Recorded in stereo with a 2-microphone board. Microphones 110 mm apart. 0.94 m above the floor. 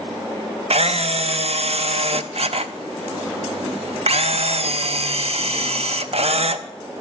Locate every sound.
0.7 s a camera shutter: 70° right (ahead or behind), 0.6 m